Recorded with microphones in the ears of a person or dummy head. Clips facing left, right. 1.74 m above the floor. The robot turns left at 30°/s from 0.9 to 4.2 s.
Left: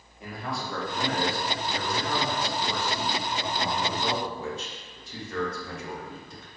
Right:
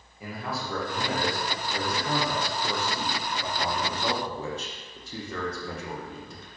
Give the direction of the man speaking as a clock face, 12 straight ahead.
12 o'clock.